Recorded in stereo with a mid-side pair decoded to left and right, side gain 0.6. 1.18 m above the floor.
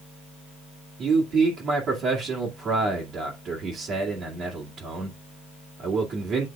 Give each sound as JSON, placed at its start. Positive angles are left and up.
{"t": 1.0, "sound": "a man speaking", "azimuth_deg": -50, "distance_m": 2.0}